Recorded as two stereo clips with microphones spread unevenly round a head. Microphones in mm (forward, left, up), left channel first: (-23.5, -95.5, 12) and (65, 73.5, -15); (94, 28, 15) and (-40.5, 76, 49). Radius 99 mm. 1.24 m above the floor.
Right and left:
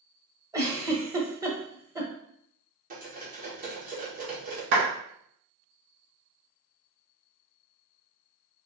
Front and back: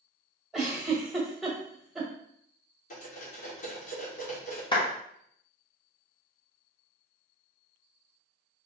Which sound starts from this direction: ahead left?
A clap, at 4.7 s.